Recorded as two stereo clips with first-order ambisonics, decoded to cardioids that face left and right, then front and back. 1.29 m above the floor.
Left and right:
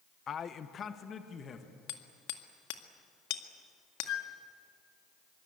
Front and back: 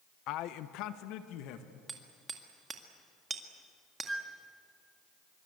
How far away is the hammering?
About 2.0 m.